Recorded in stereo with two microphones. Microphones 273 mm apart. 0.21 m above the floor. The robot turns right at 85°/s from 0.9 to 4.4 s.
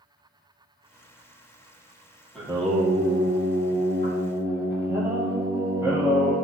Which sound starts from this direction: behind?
Singing, at 2.4 s.